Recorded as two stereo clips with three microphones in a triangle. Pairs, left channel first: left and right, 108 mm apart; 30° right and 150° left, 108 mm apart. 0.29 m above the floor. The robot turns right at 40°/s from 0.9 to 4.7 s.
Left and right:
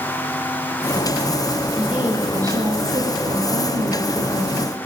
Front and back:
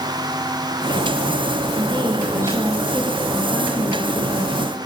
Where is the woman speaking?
170° right, 9.5 m; by 4.7 s 55° right, 9.5 m.